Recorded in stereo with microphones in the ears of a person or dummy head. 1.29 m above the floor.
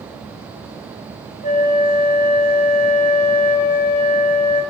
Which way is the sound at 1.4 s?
35° left (ahead or behind).